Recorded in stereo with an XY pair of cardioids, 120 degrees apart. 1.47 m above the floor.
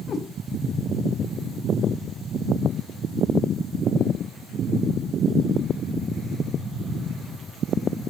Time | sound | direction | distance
0.1 | a cat meowing | 35° left | 2.5 m